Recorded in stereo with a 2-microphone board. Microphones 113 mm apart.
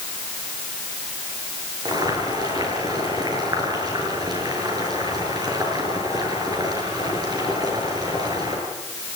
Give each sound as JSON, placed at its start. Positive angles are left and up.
{"t": 1.9, "sound": "boiling", "side_deg": -35, "distance_m": 7.0}